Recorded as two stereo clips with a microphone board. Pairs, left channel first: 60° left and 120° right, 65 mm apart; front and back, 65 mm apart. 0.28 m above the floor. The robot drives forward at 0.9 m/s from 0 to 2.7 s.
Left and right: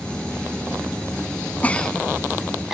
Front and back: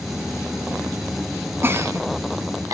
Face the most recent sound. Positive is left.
turn(degrees=160)